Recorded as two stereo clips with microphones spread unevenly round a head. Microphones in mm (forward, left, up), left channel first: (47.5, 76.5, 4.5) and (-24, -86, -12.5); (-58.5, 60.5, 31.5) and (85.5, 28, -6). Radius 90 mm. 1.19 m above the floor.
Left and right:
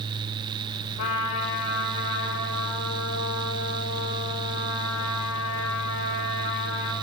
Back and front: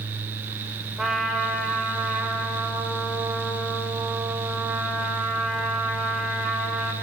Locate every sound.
1.0 s a trumpet: 75° left, 5.5 m